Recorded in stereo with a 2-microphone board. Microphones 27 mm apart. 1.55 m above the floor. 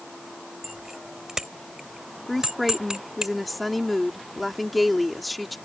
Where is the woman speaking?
Centre (ahead or behind).